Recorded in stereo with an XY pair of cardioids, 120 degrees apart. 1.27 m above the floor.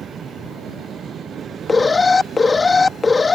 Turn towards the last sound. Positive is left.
turn(degrees=20)